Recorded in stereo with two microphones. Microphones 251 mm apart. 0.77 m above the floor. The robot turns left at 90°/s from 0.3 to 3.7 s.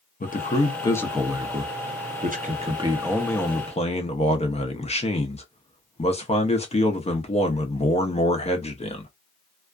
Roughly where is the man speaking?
Left.